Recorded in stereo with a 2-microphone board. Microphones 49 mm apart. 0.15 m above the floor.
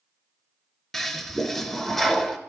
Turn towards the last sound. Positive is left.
turn(degrees=0)  # may be behind; listen again after turning